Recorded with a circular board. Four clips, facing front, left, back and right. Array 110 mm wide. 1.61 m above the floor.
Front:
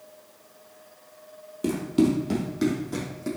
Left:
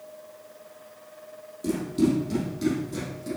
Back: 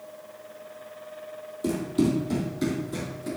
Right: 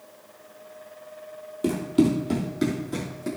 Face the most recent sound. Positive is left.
turn(degrees=-40)